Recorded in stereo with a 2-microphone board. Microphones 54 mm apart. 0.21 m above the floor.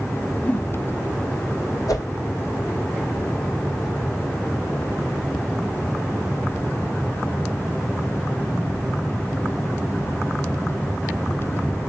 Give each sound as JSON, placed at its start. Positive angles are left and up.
{"t": 0.4, "sound": "a whoosh", "side_deg": 35, "distance_m": 0.7}
{"t": 1.9, "sound": "a whoosh", "side_deg": 85, "distance_m": 2.5}